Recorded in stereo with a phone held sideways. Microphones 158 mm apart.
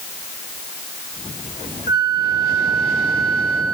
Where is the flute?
75° left (ahead or behind), 1.0 m.